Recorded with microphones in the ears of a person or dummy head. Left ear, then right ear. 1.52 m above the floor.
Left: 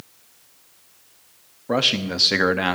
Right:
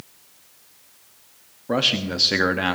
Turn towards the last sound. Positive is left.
turn(degrees=15)  # may be behind; listen again after turning